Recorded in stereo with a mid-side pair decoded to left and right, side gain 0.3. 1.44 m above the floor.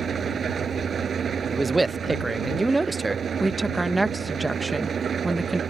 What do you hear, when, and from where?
0.0 s an engine running: 70° right
1.5 s a man speaking: 30° right
3.4 s a woman speaking: 30° right